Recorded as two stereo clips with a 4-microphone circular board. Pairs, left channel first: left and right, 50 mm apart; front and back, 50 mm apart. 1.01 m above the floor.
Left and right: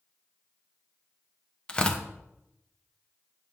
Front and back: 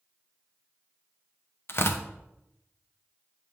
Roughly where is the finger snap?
No finger snap in this recording.